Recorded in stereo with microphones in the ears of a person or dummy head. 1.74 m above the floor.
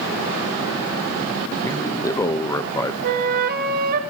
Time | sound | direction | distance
1.6 | a man speaking | 20° left (ahead or behind) | 1.1 m
3.0 | a flute | 50° right (ahead or behind) | 1.9 m